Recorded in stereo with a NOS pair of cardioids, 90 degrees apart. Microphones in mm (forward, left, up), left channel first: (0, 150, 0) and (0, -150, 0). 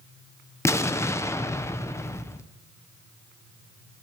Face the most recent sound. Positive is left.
turn(degrees=10)